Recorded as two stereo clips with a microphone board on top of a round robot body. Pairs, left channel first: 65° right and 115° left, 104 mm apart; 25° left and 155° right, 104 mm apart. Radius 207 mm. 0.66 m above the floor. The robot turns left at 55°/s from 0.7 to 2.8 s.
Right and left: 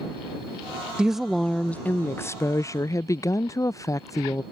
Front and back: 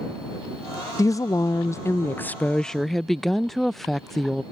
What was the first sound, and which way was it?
A woman speaking, 35° left.